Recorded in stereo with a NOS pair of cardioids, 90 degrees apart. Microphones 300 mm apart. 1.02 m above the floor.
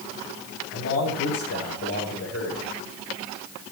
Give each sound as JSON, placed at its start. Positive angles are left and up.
{"t": 0.7, "sound": "a man speaking", "azimuth_deg": 45, "distance_m": 9.0}